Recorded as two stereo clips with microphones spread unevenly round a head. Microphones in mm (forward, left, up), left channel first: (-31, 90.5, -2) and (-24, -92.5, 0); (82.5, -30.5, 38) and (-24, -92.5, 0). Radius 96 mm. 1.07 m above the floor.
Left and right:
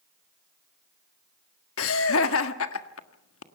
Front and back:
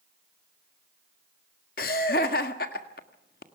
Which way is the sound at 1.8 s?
65° left.